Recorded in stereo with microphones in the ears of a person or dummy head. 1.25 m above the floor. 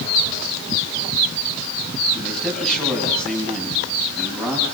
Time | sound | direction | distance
2.1 | a man speaking | 5° left (ahead or behind) | 8.5 m